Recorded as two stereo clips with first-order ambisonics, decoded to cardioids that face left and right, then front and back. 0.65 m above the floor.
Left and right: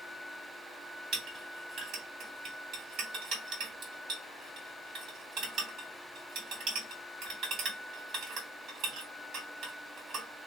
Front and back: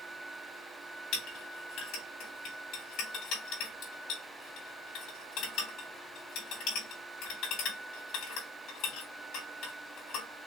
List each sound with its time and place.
1.1 s a clink: 35° right, 3 m